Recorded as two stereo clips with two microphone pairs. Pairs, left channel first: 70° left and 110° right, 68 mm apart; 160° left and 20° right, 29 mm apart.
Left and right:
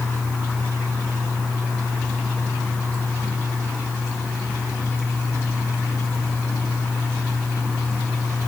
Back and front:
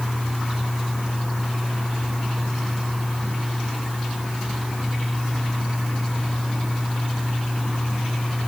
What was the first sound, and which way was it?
Only background noise.